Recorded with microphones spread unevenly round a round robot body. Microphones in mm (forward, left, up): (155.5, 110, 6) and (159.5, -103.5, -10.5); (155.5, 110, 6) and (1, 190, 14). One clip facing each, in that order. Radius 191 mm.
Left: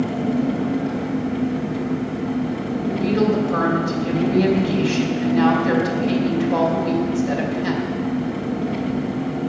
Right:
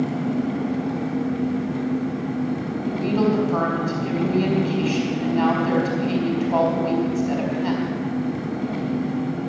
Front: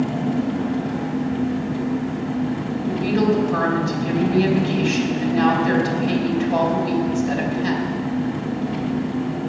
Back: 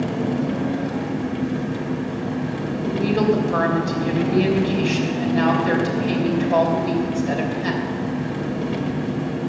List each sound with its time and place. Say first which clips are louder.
0.0 s an engine running: left 2 dB, front 1 dB; 135° left, 1.8 m
2.9 s a woman speaking: left 2 dB, even; 125° left, 3 m